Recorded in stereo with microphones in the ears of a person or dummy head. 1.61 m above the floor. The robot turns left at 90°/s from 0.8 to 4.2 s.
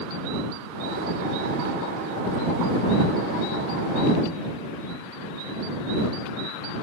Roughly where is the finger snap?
I don't hear a finger snap.